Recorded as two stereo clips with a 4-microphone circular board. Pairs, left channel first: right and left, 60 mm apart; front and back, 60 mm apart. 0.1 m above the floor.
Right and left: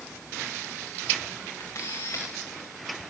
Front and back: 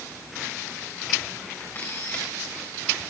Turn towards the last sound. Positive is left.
turn(degrees=-50)